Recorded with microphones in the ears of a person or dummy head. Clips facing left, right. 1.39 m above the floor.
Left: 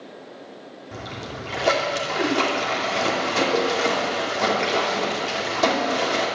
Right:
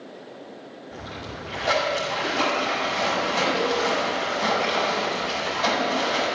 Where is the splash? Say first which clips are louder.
Left 3 dB; 65° left (ahead or behind), 2.5 m.